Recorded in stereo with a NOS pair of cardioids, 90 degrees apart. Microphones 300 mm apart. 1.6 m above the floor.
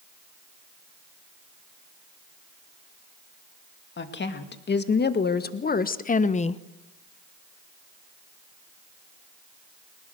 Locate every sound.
4.0 s a woman speaking: 35° left, 2.5 m; by 6.6 s 20° left, 0.8 m